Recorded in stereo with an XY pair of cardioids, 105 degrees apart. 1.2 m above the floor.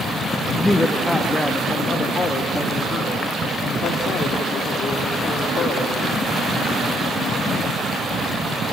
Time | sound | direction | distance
0.6 | a man speaking | 5° left | 1.2 m